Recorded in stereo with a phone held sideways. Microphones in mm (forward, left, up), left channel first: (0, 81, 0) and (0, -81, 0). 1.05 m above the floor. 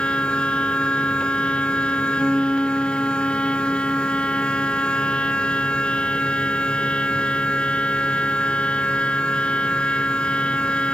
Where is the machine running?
5° left (ahead or behind), 0.9 m.